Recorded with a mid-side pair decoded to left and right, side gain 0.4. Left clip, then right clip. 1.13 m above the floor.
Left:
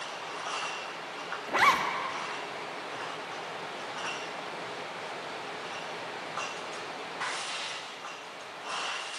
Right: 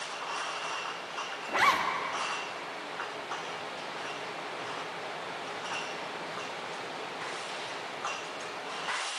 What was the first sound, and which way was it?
A zipper, 20° left.